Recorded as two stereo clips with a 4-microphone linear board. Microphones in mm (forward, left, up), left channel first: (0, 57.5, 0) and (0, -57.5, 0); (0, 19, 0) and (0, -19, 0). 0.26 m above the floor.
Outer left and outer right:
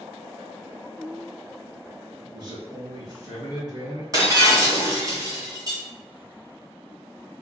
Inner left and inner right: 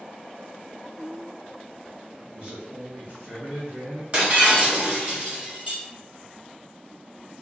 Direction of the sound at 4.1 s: 35° right (ahead or behind).